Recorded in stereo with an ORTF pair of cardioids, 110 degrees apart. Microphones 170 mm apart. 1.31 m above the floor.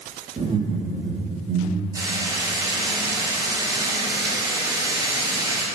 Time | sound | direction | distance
0.4 | laughter | 30° right | 2 m
1.9 | frying | 20° right | 5 m